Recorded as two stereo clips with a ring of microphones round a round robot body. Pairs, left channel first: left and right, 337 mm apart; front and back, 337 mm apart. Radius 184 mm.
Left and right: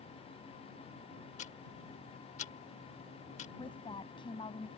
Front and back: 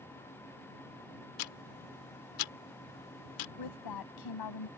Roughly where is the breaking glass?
I don't hear breaking glass.